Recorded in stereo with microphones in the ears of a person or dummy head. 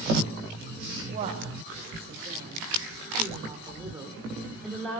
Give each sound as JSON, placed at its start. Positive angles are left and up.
{"t": 1.0, "sound": "a woman speaking", "side_deg": -35, "distance_m": 5.5}